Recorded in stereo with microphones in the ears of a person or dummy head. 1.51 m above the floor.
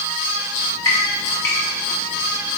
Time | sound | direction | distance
0.6 | dripping | 15° left (ahead or behind) | 0.7 m